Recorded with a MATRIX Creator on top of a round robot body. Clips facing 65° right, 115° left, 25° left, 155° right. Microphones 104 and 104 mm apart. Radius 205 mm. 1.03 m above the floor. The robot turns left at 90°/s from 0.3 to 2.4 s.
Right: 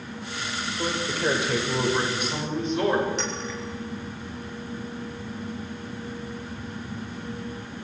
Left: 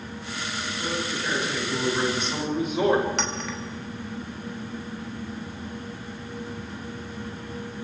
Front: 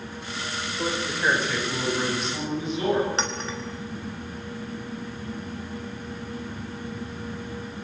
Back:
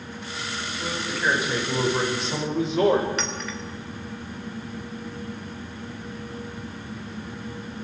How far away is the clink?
About 3 m.